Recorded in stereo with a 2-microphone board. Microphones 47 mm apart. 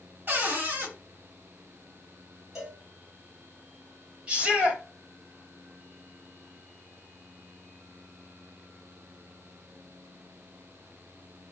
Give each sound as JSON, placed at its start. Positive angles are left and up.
{"t": 0.3, "sound": "a cupboard door", "side_deg": -50, "distance_m": 1.5}
{"t": 2.5, "sound": "a cowbell", "side_deg": -10, "distance_m": 1.2}
{"t": 4.3, "sound": "a shout", "side_deg": -20, "distance_m": 1.5}